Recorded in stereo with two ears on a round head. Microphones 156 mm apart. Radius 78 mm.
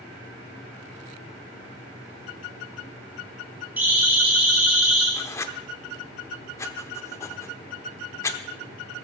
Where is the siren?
10° right (ahead or behind), 6.5 m; by 5.1 s 5° right (ahead or behind), 7.5 m.